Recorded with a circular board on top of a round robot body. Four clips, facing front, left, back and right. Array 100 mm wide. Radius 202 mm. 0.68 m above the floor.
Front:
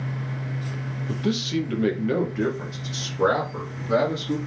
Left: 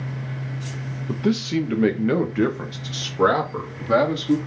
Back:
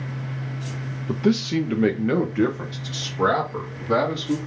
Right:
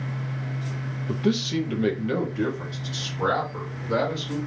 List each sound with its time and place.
1.1 s a man speaking: 170° left, 1.0 m; by 4.4 s 100° left, 2 m